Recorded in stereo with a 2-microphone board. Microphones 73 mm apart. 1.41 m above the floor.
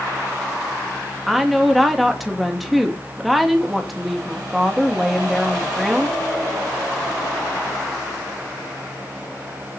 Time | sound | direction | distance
1.3 | a woman speaking | centre (ahead or behind) | 2.5 m